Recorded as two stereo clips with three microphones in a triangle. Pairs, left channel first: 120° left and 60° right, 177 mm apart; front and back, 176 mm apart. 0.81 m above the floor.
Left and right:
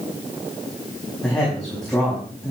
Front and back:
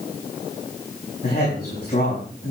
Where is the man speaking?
35° left, 5 m.